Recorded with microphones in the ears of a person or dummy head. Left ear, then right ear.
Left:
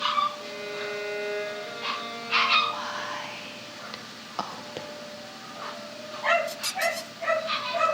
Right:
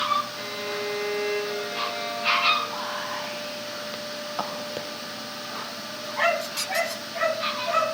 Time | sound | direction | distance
0.4 | a violin | 55° right (ahead or behind) | 2 m
2.7 | whispering | 5° right (ahead or behind) | 0.5 m